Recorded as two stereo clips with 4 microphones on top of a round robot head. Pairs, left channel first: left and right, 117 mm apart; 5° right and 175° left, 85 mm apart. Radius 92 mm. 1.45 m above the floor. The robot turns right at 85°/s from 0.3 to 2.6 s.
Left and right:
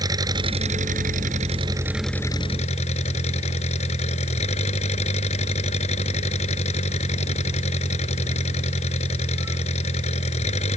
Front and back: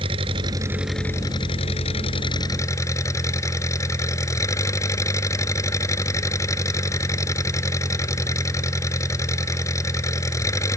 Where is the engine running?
145° right; by 10.8 s 50° left.